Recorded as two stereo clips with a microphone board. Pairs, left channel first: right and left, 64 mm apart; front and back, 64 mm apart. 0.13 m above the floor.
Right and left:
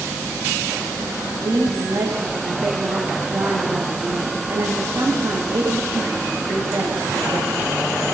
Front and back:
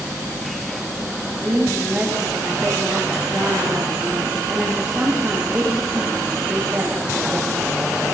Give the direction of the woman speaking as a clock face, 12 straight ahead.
9 o'clock.